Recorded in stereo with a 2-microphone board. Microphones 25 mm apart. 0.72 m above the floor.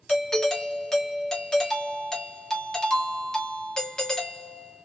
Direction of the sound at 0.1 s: 25° left (ahead or behind).